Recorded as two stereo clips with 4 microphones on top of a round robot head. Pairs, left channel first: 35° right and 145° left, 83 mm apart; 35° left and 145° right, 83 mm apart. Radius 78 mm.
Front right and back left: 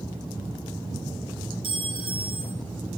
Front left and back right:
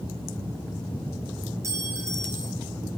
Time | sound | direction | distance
1.6 | a clink | 160° left | 6.5 m